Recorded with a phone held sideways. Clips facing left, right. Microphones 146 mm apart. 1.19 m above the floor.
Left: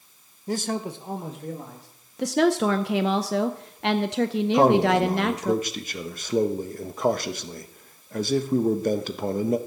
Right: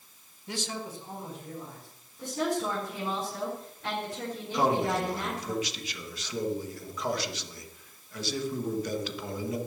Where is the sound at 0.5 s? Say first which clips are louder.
Left 9 dB; 35° left (ahead or behind), 0.8 m; by 1.9 s 80° left, 2.5 m.